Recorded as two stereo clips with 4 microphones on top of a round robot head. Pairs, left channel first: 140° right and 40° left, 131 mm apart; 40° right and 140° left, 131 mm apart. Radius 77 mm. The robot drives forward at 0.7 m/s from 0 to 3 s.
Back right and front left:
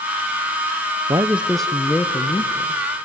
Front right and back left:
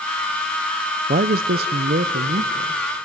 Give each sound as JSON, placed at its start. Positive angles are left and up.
{"t": 1.1, "sound": "a man speaking", "azimuth_deg": 105, "distance_m": 0.6}